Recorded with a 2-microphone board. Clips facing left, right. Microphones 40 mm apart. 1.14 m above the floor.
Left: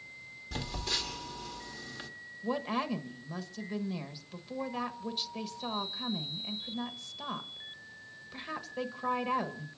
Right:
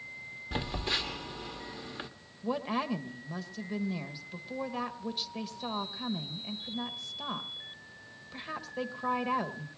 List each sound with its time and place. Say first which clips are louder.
0.5 s a phone buzzing: right 3 dB; 25° right (ahead or behind), 1.2 m
2.4 s a woman speaking: right 1 dB; 5° right (ahead or behind), 1.2 m